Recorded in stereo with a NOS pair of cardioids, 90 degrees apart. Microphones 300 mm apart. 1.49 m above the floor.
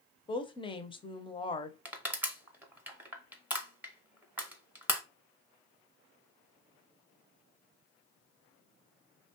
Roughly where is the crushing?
Ahead.